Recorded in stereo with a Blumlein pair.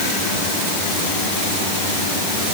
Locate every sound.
Only background noise.